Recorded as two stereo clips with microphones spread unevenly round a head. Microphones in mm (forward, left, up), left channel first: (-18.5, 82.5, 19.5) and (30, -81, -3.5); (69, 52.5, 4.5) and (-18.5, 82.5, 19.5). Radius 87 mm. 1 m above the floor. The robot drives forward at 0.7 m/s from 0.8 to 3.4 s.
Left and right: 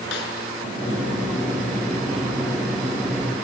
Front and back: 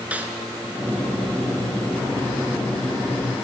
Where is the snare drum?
90° left, 4 m.